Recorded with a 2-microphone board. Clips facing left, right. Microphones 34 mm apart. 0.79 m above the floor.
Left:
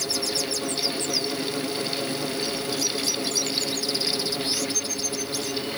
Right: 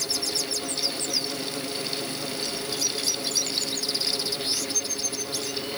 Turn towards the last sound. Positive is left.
No sound to turn to.